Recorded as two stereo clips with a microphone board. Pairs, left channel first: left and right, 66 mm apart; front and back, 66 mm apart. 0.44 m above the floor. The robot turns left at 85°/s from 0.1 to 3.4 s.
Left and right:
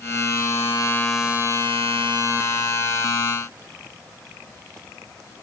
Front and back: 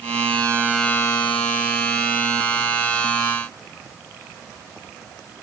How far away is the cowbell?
I don't hear a cowbell.